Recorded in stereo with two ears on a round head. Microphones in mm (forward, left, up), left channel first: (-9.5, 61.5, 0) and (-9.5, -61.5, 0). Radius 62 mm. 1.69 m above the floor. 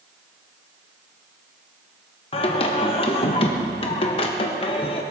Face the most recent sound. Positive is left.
turn(degrees=45)  # may be behind; listen again after turning